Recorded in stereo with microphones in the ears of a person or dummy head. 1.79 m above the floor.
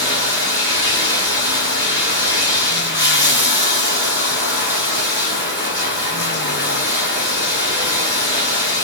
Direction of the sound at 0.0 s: 10° right (ahead or behind).